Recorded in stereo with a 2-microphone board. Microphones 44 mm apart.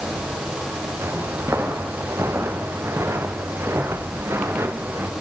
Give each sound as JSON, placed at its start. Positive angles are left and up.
{"t": 1.0, "sound": "footsteps", "side_deg": -85, "distance_m": 6.5}